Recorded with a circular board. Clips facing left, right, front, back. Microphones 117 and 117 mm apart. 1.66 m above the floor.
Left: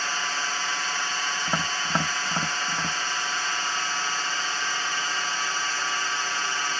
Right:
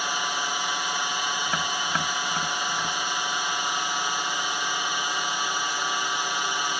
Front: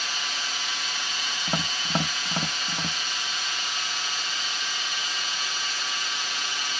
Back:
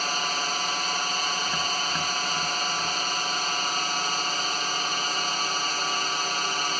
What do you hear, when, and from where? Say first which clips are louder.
0.0 s a drone: right 2 dB, back 6 dB; 160° right
1.5 s tapping: even, even; 30° left